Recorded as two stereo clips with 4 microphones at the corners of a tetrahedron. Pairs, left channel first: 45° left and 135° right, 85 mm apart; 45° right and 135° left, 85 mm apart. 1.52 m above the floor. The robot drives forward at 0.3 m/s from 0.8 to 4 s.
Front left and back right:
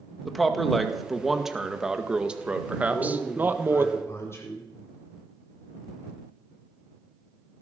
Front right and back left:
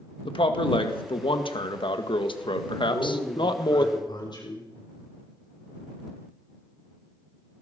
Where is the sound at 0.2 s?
45° right, 1.9 m; by 3.9 s 75° right, 1.4 m.